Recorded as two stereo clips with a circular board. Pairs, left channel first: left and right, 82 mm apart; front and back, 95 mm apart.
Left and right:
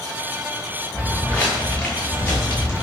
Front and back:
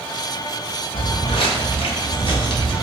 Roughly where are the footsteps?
Ahead.